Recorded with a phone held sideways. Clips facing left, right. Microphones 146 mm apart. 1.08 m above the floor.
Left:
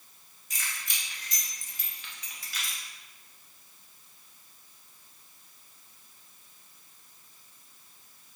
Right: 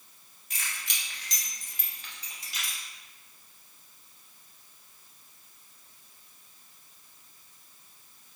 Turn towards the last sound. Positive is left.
turn(degrees=-15)  # may be behind; listen again after turning